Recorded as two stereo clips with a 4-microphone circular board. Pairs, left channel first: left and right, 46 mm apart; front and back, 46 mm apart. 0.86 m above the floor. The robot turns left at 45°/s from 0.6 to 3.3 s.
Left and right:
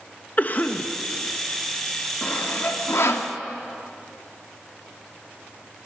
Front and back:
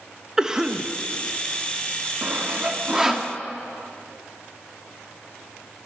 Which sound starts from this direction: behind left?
Sawing, at 2.2 s.